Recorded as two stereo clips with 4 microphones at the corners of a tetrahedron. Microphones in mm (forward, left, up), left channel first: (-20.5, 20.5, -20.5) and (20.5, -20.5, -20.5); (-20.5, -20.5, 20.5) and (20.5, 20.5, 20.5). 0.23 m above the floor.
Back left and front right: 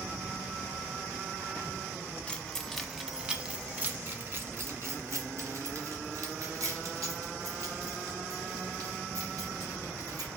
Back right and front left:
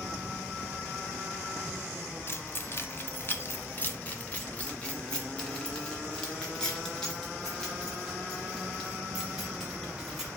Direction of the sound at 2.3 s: 155° right.